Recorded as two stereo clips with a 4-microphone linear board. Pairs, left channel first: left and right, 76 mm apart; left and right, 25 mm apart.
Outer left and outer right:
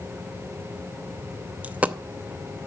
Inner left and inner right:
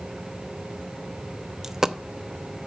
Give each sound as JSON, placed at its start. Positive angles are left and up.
{"t": 1.6, "sound": "a dropped coin", "side_deg": -20, "distance_m": 0.5}